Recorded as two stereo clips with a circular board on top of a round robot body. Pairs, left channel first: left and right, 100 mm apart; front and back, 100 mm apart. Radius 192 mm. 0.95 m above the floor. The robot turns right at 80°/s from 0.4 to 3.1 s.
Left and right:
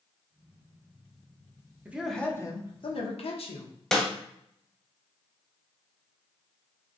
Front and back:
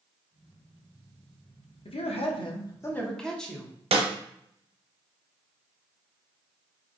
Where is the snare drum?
175° left, 0.7 m.